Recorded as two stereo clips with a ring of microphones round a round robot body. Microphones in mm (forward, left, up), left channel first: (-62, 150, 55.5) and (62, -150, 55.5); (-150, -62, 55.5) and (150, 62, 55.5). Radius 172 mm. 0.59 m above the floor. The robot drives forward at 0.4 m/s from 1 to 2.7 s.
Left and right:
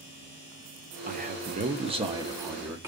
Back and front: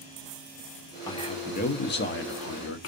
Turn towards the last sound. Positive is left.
turn(degrees=-145)